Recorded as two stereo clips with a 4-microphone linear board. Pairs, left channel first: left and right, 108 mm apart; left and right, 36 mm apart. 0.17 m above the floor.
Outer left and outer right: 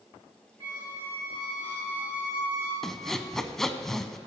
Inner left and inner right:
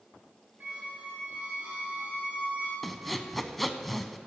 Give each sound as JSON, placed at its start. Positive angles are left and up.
{"t": 0.6, "sound": "a squeak", "side_deg": -45, "distance_m": 4.5}
{"t": 2.8, "sound": "sawing", "side_deg": 5, "distance_m": 0.6}